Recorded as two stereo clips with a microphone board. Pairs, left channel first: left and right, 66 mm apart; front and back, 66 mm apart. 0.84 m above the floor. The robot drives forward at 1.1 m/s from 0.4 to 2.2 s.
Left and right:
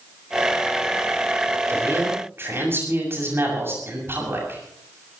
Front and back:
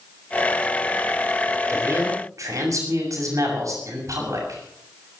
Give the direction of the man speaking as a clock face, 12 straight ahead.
5 o'clock.